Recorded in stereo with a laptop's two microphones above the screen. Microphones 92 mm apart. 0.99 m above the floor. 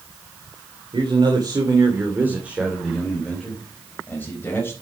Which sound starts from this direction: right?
A man speaking, at 0.9 s.